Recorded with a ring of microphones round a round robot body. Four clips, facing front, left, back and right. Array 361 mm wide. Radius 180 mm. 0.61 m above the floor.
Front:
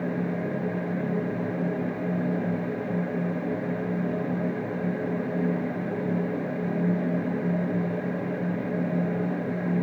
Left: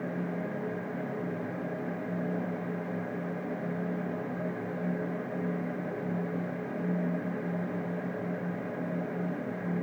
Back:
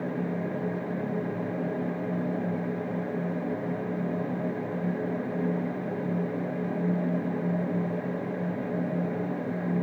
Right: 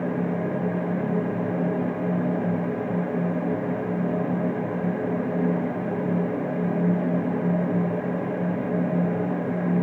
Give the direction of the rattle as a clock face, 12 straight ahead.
No rattle in this recording.